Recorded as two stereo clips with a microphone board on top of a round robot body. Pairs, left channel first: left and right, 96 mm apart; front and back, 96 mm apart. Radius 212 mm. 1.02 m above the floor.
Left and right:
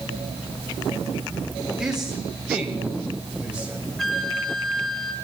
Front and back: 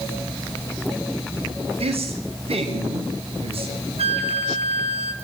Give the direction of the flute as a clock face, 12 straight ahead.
6 o'clock.